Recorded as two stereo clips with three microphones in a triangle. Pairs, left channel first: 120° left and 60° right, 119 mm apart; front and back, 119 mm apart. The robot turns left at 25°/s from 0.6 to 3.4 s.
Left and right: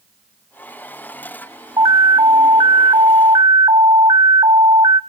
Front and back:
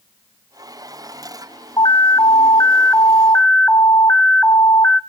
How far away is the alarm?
About 0.9 m.